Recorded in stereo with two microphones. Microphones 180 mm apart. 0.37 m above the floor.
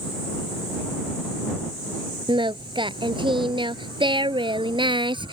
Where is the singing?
25° right (ahead or behind).